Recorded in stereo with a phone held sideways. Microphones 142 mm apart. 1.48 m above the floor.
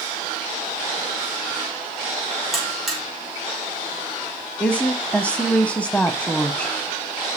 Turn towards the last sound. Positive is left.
turn(degrees=10)  # may be behind; listen again after turning